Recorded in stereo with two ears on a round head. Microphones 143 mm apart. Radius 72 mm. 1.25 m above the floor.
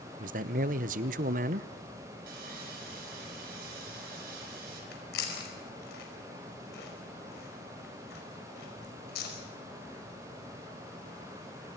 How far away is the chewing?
About 5 m.